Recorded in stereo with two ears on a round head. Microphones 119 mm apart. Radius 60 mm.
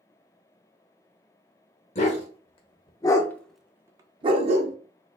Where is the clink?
No clink in this recording.